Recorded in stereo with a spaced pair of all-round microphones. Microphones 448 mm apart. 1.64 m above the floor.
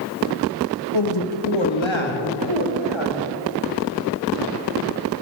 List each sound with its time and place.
0.9 s a man speaking: 85° left, 2.5 m